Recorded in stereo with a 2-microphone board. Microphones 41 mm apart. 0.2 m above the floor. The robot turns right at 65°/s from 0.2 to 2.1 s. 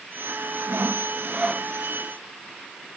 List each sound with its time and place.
0.7 s sawing: 70° right; by 1.7 s 5° right